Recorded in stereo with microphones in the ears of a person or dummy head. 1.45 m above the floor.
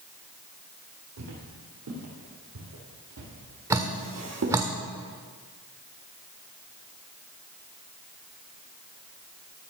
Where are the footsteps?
60° right (ahead or behind), 4 m; by 4.6 s 55° right (ahead or behind), 2.5 m.